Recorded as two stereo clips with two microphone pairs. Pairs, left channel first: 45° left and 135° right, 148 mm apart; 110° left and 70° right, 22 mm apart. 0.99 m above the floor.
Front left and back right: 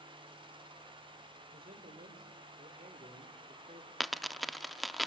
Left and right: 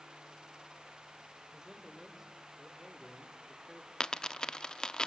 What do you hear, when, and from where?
1.5 s a man speaking: 130° right, 4 m; by 3.9 s 175° right, 3 m
4.0 s a dropped coin: 135° left, 0.6 m